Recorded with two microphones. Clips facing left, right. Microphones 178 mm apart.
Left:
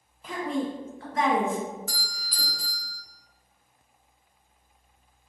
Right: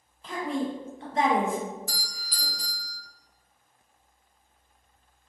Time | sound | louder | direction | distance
0.2 | a woman speaking | left 1 dB | 10° left (ahead or behind) | 0.7 m
1.9 | a doorbell | left 1 dB | 55° left (ahead or behind) | 0.8 m